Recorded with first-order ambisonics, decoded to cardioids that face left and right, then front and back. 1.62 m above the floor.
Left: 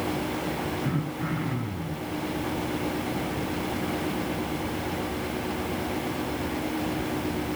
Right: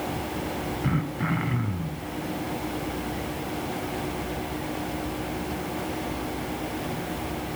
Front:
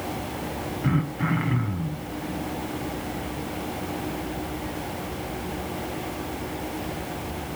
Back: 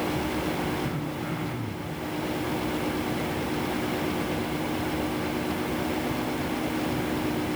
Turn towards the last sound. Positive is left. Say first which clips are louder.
# right 2 dB, front 4 dB
turn(degrees=-40)